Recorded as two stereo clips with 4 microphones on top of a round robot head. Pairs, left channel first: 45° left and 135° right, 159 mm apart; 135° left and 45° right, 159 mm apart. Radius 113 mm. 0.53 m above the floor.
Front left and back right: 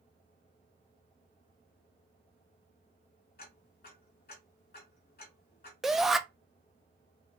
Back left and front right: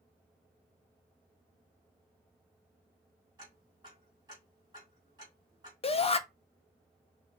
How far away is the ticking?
About 2 m.